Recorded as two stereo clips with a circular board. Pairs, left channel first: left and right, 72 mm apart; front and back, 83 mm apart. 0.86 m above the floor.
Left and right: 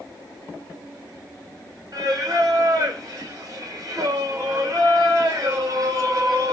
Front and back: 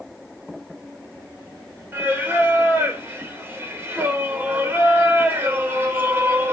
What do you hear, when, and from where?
1.9 s singing: 115° right, 3 m